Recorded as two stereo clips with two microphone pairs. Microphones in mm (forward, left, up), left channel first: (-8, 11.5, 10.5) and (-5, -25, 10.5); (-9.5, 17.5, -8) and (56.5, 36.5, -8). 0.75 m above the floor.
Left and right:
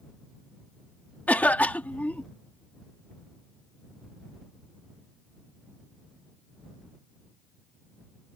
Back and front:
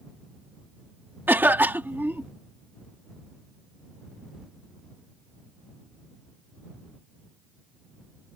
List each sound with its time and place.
1.3 s a cough: 70° left